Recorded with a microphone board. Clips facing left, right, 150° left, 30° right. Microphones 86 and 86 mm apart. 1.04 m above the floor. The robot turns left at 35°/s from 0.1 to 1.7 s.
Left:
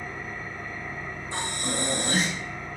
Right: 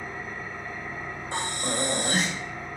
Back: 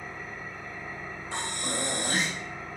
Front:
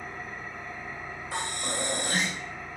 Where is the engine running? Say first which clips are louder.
Even, front 1 dB; 65° right, 2 m; by 2.8 s 120° right, 2 m.